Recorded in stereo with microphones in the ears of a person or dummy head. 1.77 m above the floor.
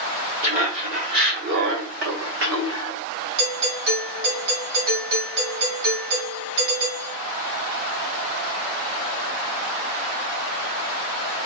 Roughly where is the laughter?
Right.